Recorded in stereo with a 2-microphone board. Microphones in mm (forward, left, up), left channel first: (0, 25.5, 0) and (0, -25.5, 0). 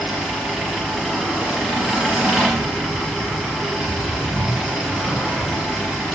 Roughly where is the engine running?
Centre.